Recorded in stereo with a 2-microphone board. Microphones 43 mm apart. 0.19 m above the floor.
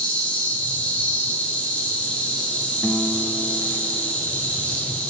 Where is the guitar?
45° left (ahead or behind), 0.9 m.